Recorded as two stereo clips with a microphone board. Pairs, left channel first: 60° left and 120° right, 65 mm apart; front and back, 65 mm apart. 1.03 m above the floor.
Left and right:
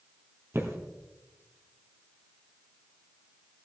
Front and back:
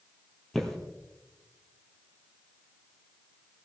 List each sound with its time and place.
0.5 s footsteps: 80° right, 1.9 m